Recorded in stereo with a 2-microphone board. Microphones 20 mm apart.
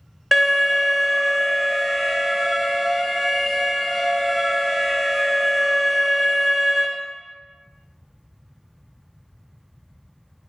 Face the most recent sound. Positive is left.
turn(degrees=-5)  # may be behind; listen again after turning